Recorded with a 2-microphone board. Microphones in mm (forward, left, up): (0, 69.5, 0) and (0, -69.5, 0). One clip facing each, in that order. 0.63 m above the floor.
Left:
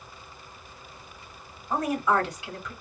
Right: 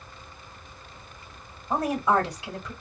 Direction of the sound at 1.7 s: 30° right (ahead or behind).